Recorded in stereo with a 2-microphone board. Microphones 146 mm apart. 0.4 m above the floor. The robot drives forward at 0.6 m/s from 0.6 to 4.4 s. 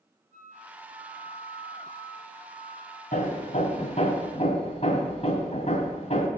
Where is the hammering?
60° left (ahead or behind), 1.8 m; by 6.3 s 45° left (ahead or behind), 2 m.